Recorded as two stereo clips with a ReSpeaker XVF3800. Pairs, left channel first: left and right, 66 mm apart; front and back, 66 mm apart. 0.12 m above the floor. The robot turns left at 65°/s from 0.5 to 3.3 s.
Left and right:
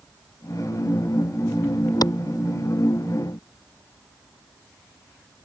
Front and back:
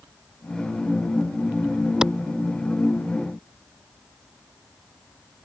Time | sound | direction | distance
2.0 | a clap | 100° left | ?